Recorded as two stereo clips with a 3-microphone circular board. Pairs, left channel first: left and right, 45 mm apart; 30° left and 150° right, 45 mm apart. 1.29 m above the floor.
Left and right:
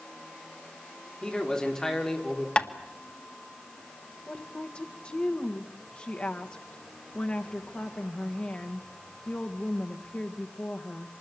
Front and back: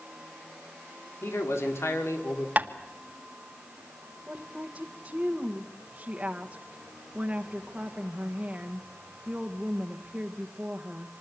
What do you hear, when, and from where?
1.2 s a man speaking: 20° left, 4 m; by 2.5 s 10° left, 4.5 m
2.6 s tapping: 155° left, 1.7 m
4.3 s a woman speaking: 145° left, 1.5 m